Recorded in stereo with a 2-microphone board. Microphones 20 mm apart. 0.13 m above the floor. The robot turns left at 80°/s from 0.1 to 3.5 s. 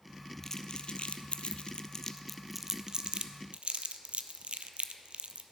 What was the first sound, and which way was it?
Crumpling, 20° left (ahead or behind).